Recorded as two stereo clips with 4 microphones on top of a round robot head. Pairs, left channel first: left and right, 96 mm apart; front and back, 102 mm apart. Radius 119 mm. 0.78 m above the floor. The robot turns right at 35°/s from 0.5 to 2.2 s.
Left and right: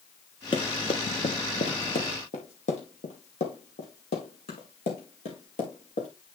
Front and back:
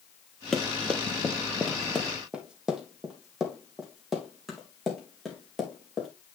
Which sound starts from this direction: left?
Running footsteps, at 0.5 s.